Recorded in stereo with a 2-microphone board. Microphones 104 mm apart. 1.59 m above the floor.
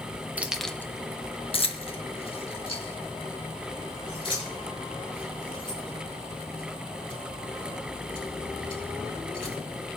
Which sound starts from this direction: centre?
Keys jangling, at 0.4 s.